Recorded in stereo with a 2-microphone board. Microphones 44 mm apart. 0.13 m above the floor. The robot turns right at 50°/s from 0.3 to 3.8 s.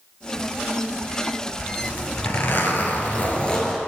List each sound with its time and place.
1.8 s a zipper: 70° left, 1.4 m; by 3.8 s 170° left, 1.4 m